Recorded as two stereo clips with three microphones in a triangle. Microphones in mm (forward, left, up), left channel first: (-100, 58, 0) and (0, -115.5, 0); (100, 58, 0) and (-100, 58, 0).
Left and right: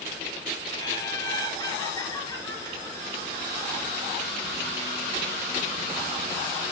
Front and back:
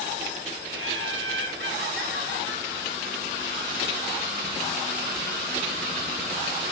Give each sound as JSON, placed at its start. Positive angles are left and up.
{"t": 0.7, "sound": "laughter", "azimuth_deg": -170, "distance_m": 9.5}